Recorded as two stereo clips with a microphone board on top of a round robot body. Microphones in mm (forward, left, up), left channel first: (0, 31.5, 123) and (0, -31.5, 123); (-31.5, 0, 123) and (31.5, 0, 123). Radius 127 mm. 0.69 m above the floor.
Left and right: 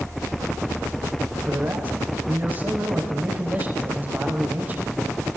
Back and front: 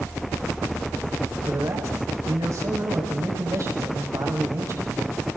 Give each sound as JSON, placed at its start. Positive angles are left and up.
{"t": 1.5, "sound": "a man speaking", "azimuth_deg": -30, "distance_m": 5.5}